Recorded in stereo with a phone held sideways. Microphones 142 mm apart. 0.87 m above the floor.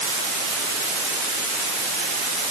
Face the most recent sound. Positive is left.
No sound to turn to.